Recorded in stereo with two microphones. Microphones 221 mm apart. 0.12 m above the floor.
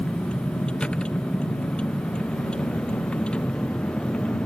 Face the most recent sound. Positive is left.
turn(degrees=5)  # may be behind; listen again after turning